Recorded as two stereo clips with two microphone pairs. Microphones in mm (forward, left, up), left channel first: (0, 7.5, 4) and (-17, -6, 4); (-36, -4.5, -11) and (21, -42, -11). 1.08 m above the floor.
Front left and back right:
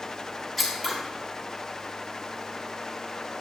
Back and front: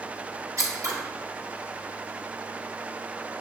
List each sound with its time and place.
0.6 s scissors: 50° right, 1.0 m